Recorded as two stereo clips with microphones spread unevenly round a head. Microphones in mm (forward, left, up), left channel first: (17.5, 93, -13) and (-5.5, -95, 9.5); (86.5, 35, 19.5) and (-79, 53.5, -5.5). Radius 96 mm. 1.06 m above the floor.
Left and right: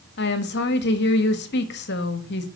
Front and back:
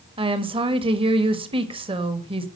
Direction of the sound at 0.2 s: 115° left.